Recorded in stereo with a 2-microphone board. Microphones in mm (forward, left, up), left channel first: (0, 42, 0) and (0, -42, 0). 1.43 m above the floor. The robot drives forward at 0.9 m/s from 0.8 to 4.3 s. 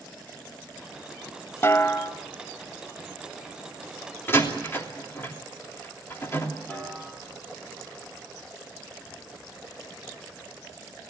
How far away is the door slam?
About 3 m.